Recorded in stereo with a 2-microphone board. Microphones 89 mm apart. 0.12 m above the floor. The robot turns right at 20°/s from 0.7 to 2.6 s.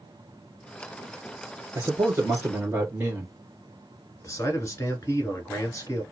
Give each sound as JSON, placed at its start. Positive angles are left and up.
{"t": 1.8, "sound": "a man speaking", "side_deg": -30, "distance_m": 2.0}
{"t": 4.2, "sound": "a man speaking", "side_deg": 30, "distance_m": 1.3}